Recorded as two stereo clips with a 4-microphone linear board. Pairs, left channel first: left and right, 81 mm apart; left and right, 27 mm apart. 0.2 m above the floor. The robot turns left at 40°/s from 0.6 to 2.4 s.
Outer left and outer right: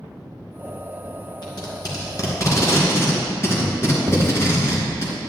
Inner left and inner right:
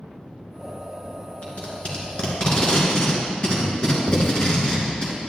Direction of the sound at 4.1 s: 15° right (ahead or behind).